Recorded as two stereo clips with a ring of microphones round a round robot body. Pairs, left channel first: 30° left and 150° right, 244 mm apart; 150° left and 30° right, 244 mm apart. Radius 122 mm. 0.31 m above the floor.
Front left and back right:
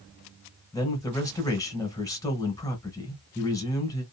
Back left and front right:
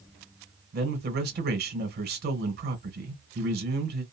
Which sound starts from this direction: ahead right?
A man speaking, at 0.7 s.